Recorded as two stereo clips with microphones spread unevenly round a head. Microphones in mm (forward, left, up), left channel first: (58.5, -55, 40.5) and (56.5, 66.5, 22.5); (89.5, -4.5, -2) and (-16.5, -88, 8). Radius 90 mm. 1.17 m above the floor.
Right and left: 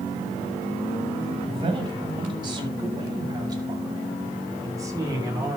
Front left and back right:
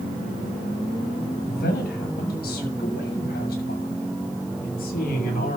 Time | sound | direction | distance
1.4 | a man speaking | 45° left | 6.5 m